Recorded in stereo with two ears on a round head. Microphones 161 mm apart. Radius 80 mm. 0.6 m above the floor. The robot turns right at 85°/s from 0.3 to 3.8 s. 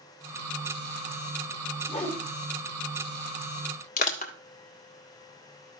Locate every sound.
1.9 s a whoosh: 45° left (ahead or behind), 3 m; by 2.2 s 20° left (ahead or behind), 3 m
4.0 s crushing: 45° left (ahead or behind), 1.7 m